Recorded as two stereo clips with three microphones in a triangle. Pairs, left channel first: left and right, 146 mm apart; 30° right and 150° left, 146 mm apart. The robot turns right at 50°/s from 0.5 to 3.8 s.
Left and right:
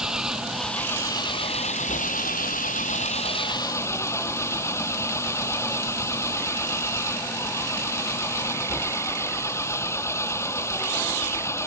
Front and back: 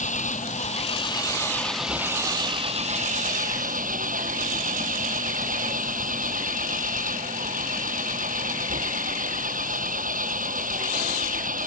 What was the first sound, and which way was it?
An engine running, 5° right.